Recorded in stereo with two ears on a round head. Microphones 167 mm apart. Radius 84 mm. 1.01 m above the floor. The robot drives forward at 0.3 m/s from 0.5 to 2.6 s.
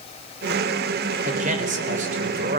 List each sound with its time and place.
1.2 s a man speaking: 45° right (ahead or behind), 3.5 m; by 2.6 s 40° right (ahead or behind), 4 m